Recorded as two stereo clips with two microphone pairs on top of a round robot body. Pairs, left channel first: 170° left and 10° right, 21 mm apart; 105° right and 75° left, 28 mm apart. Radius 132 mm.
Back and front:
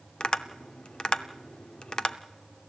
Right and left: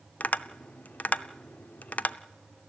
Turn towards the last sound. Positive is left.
turn(degrees=-135)